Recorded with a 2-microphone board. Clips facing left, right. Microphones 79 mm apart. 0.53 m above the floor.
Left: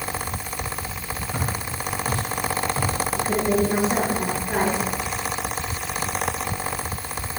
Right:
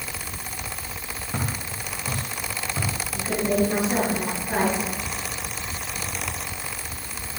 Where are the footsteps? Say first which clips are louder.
Even; 30° right (ahead or behind), 6 m; by 2.9 s 40° right (ahead or behind), 6.5 m.